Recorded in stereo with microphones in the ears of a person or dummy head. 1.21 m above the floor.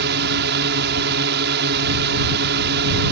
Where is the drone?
55° right (ahead or behind).